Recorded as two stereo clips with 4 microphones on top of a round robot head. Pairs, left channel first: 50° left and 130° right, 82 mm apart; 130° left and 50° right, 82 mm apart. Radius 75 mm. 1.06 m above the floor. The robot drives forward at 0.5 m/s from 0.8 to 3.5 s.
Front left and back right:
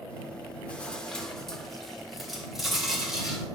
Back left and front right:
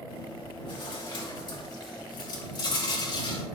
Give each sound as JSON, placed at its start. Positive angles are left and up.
{"t": 0.1, "sound": "chewing", "azimuth_deg": 125, "distance_m": 1.9}